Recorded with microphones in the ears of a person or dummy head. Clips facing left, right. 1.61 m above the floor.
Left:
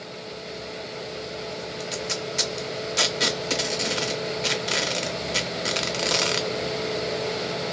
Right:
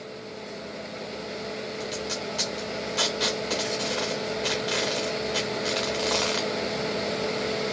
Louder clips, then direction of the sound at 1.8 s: Left 1 dB; 40° left (ahead or behind).